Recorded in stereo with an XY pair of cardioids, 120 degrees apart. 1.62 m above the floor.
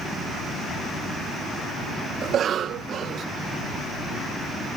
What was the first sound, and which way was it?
A cough, 55° right.